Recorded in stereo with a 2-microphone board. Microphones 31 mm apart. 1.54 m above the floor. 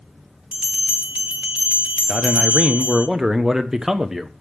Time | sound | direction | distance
0.5 | a bell | 40° right (ahead or behind) | 1.1 m
2.1 | a man speaking | 15° right (ahead or behind) | 1.0 m